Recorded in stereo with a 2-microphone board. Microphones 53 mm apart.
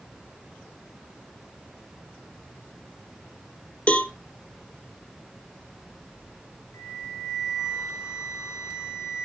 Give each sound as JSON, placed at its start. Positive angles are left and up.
{"t": 3.9, "sound": "a cowbell", "side_deg": 25, "distance_m": 1.3}
{"t": 6.7, "sound": "a flute", "side_deg": 70, "distance_m": 5.0}